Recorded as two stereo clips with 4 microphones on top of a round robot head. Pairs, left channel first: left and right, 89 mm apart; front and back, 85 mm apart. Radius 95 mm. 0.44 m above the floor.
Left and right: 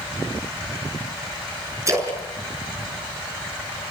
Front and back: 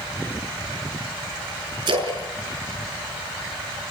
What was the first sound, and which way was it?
A splash, 145° right.